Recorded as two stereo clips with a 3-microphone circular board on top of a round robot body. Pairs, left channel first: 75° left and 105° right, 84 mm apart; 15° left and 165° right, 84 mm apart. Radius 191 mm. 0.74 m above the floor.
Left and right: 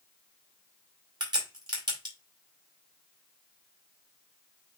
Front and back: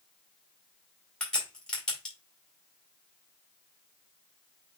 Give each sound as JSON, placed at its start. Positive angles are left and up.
{"t": 1.2, "sound": "a crack", "azimuth_deg": -65, "distance_m": 4.5}